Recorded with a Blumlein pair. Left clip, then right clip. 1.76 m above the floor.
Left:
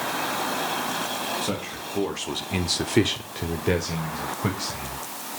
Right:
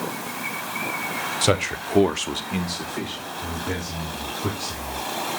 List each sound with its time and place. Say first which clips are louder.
1.4 s a man speaking: right 8 dB; 55° right, 0.9 m; by 5.0 s 75° left, 1.8 m